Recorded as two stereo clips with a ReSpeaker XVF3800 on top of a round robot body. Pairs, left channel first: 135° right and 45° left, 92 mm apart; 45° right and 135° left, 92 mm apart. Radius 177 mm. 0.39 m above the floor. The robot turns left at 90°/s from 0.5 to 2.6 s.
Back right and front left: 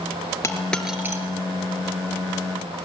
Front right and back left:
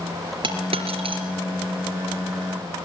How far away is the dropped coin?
About 4.5 m.